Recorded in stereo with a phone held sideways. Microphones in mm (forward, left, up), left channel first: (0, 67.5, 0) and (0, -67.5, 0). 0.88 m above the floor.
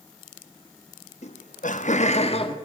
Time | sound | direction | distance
1.2 | laughter | 55° left (ahead or behind) | 1.1 m